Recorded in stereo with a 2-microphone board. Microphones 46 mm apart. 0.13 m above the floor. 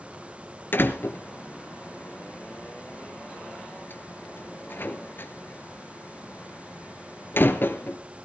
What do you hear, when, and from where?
0.7 s a door slam: 55° left (ahead or behind), 1.9 m